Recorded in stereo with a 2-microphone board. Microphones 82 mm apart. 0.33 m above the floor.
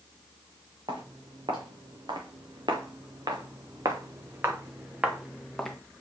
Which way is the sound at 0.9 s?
80° right.